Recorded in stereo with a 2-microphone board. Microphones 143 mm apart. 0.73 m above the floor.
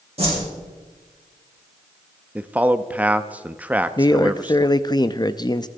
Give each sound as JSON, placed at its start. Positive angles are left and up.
{"t": 0.2, "sound": "a whoosh", "side_deg": -45, "distance_m": 8.0}
{"t": 2.4, "sound": "a man speaking", "side_deg": -10, "distance_m": 0.7}
{"t": 4.0, "sound": "a man speaking", "side_deg": 30, "distance_m": 0.5}